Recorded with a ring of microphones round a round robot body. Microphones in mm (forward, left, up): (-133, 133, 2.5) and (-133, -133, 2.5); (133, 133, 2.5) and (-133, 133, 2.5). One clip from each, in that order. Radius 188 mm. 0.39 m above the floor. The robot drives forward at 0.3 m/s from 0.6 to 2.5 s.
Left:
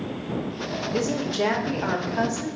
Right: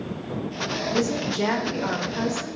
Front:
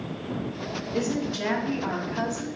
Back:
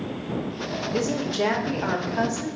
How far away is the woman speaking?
About 0.8 m.